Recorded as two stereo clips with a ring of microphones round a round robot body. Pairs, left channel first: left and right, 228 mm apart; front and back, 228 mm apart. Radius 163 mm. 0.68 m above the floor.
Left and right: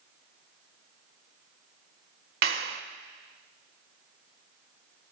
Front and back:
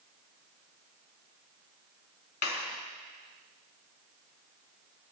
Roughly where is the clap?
Ahead right.